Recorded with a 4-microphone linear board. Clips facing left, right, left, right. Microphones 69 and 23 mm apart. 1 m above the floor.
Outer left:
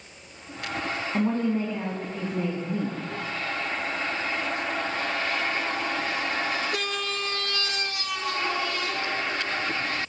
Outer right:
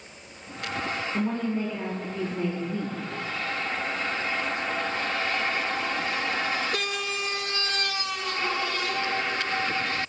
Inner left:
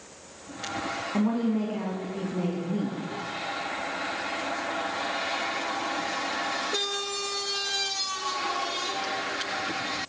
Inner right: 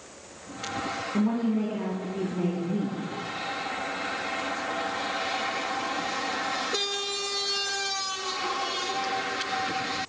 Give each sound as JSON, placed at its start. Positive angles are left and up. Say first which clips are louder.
{"t": 1.1, "sound": "a woman speaking", "louder": "outer left 4 dB, even", "side_deg": 45, "distance_m": 1.9}